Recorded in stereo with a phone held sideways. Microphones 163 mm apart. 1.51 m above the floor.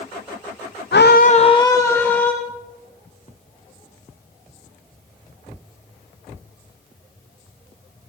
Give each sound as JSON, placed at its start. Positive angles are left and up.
{"t": 0.9, "sound": "a scream", "side_deg": 85, "distance_m": 0.6}